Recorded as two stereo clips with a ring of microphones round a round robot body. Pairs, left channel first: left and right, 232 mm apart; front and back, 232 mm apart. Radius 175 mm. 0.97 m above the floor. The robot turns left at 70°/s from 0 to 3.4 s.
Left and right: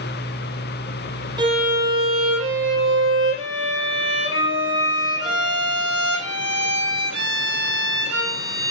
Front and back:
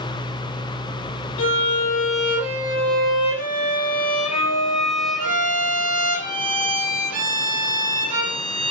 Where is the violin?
20° right, 4 m; by 8.7 s 160° right, 4 m.